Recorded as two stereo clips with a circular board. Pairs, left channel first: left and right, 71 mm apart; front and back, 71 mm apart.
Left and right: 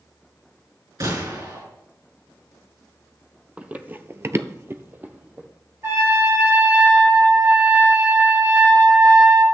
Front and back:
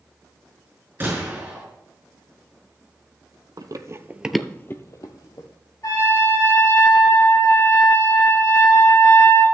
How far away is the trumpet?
About 3.5 m.